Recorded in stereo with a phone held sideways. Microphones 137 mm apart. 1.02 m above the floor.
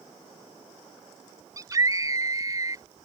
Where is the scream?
30° right (ahead or behind).